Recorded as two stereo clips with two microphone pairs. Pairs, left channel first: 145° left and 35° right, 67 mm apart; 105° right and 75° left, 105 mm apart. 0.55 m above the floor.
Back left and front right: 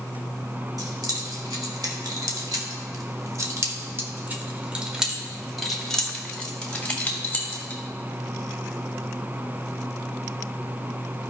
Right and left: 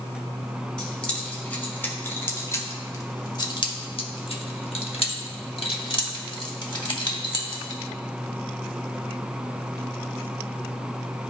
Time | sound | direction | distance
0.8 | keys jangling | 25° right | 2 m